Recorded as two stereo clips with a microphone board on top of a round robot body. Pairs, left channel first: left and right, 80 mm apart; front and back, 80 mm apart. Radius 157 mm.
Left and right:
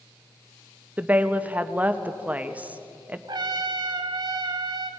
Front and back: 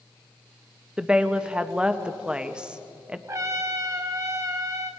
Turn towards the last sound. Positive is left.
turn(degrees=-125)